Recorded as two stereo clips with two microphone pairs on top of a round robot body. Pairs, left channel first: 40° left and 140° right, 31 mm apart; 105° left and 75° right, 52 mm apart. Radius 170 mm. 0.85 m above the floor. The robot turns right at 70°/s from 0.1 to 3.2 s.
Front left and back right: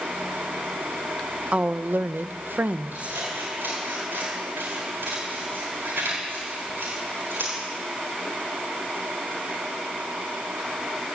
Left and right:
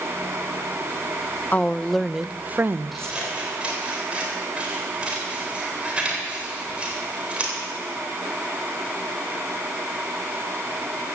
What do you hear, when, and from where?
1.5 s a woman speaking: 165° left, 0.7 m; by 3.1 s 80° right, 0.7 m
2.9 s scissors: 165° right, 4 m; by 7.5 s 145° right, 4 m